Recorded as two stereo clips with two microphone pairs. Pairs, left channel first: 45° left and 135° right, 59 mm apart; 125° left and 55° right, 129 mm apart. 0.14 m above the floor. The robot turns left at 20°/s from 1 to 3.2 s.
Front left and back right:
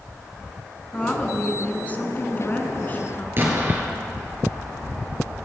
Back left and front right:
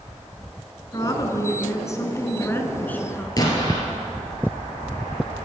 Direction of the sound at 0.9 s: 100° left.